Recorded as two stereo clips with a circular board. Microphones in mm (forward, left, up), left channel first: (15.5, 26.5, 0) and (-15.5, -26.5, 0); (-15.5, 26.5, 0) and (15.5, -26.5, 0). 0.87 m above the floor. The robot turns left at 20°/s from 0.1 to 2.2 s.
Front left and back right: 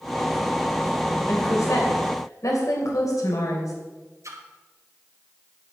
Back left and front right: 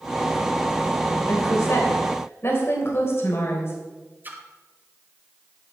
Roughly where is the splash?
Right.